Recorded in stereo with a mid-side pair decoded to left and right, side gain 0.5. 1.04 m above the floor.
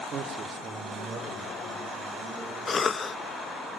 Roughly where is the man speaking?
Ahead right.